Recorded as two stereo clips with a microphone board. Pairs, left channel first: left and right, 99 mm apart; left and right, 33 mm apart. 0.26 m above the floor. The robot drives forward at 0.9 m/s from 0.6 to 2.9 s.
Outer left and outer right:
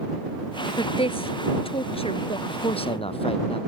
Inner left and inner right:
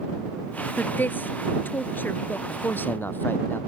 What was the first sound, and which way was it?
A woman speaking, 65° left (ahead or behind).